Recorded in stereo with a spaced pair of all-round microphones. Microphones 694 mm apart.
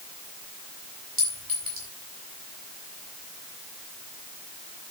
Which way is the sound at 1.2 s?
45° right (ahead or behind).